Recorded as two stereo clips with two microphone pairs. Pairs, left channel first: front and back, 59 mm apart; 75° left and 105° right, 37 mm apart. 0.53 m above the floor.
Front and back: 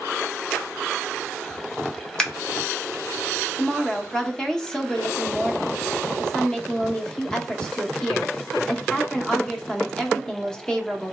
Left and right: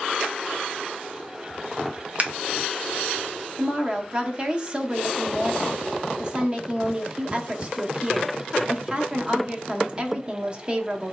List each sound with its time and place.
2.2 s scissors: 70° right, 1.0 m
3.6 s a woman speaking: 70° right, 0.7 m